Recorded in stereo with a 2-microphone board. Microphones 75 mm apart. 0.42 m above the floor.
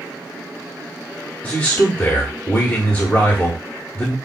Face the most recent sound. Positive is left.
turn(degrees=25)  # may be behind; listen again after turning